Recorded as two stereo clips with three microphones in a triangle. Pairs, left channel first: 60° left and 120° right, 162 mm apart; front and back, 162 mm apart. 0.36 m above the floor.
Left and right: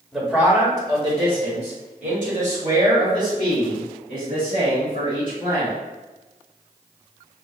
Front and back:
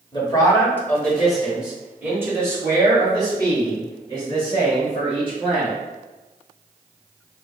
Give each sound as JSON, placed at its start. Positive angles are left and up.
{"t": 0.1, "sound": "a man speaking", "azimuth_deg": -35, "distance_m": 1.1}